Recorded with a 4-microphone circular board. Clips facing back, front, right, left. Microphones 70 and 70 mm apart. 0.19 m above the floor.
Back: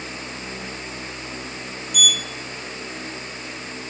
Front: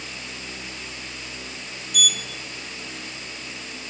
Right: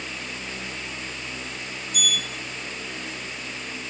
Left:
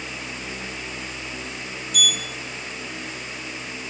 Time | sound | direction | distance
1.9 | a sliding door | 95° left | 0.5 m